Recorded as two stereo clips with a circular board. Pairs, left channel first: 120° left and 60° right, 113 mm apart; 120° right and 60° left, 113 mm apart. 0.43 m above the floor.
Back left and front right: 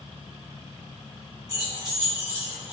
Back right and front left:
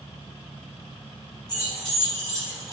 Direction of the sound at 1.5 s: 10° right.